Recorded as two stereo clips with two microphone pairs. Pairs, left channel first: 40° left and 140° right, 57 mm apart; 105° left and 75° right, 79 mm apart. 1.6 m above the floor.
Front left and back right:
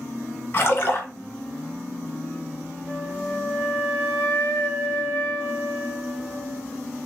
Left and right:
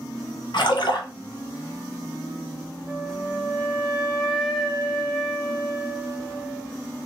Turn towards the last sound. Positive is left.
turn(degrees=0)